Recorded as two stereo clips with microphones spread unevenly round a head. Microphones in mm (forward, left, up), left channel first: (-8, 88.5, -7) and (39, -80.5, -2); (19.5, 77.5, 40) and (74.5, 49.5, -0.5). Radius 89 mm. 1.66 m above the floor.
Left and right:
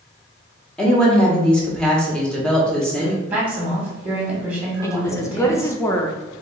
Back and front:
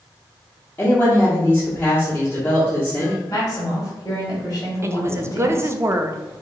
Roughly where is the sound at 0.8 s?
Behind.